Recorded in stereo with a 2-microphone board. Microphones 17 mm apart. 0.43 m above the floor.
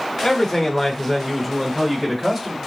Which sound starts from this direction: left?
A man speaking, at 0.2 s.